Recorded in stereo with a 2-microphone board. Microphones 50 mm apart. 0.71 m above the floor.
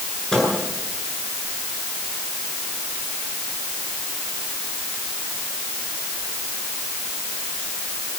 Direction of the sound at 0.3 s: 10° left (ahead or behind).